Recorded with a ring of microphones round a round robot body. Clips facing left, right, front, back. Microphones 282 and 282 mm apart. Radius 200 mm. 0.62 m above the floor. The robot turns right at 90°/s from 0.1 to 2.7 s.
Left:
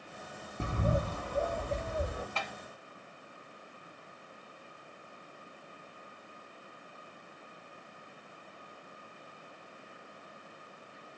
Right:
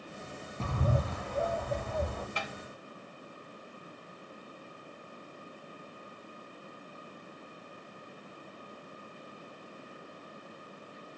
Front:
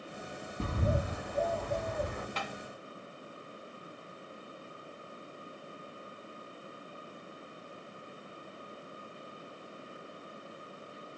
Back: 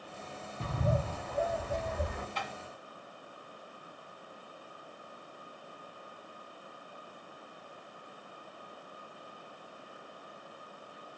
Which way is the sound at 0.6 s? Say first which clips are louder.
Even, even; 25° left.